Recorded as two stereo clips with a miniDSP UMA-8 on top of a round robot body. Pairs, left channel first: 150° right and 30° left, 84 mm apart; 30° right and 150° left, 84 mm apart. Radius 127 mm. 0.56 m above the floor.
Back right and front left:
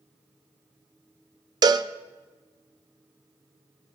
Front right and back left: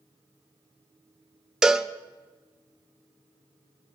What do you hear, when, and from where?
1.6 s a cowbell: 65° left, 0.5 m